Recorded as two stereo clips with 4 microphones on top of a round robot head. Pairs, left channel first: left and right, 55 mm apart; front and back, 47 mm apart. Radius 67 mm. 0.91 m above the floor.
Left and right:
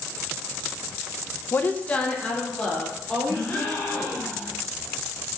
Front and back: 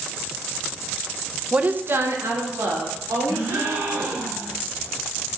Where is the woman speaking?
115° left, 0.7 m; by 4.2 s straight behind, 4.5 m.